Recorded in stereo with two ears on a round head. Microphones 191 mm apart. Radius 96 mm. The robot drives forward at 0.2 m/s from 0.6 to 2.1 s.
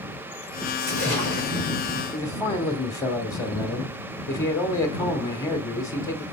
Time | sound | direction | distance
0.8 | a splash | 40° right (ahead or behind) | 5.5 m
2.1 | a man speaking | 15° left (ahead or behind) | 0.9 m